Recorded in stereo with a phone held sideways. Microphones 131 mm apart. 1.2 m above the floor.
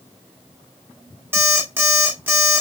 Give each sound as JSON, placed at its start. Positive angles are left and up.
{"t": 1.3, "sound": "an alarm clock", "side_deg": -15, "distance_m": 1.4}